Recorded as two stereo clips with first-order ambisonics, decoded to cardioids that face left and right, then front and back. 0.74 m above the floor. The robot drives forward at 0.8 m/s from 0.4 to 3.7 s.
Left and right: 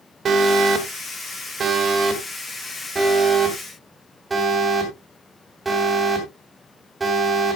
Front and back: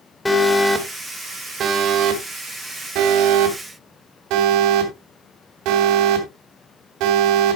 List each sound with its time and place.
0.2 s an alarm: 75° right, 1.5 m; by 7.5 s 165° right, 3 m